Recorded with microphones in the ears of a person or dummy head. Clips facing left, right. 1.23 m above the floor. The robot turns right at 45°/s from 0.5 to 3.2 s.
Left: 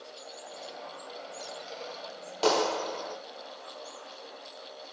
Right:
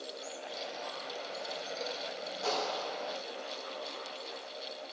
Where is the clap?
105° left, 0.8 m; by 3.2 s 135° left, 0.8 m.